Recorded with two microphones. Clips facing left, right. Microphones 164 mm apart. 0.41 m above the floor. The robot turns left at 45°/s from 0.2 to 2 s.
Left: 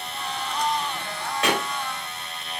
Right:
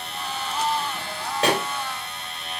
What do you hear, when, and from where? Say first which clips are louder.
1.4 s a pop: right 3 dB; 35° right (ahead or behind), 1.9 m; by 1.7 s 25° right (ahead or behind), 1.9 m